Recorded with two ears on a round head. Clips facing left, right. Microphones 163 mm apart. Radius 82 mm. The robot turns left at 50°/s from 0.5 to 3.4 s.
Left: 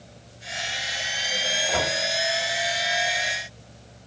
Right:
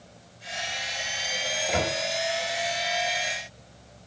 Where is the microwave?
10° right (ahead or behind), 1.9 m; by 2.0 s centre (ahead or behind), 1.9 m.